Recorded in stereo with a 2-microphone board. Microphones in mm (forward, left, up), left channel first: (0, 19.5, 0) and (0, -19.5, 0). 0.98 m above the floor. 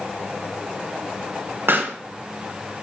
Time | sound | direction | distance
1.7 | a pop | 60° right (ahead or behind) | 1.5 m